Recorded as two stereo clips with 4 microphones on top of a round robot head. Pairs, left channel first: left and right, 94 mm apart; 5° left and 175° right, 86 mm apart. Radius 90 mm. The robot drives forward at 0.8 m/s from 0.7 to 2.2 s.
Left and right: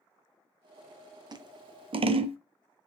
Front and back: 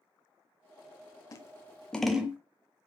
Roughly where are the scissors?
Ahead right.